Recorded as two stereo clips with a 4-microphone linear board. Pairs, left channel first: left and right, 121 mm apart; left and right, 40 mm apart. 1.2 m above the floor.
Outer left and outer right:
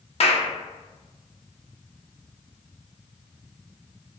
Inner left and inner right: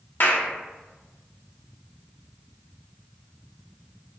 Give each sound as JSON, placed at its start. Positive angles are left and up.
{"t": 0.2, "sound": "a clap", "side_deg": 55, "distance_m": 0.6}